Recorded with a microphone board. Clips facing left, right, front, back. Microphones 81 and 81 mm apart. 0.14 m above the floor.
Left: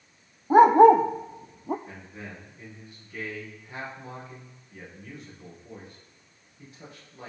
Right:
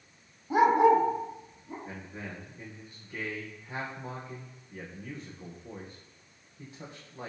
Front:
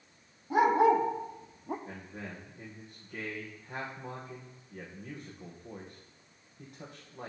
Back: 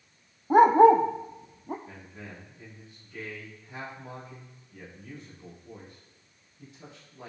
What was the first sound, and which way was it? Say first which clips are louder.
A dog barking: left 7 dB, back 7 dB; 140° left.